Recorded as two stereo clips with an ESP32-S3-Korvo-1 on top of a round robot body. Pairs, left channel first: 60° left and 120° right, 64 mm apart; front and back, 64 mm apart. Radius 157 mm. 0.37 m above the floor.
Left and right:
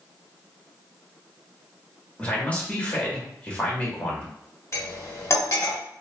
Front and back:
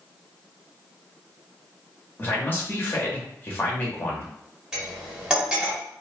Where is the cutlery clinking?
100° left, 1.5 m.